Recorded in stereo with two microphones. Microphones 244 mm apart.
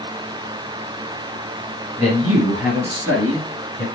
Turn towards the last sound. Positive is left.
turn(degrees=5)  # may be behind; listen again after turning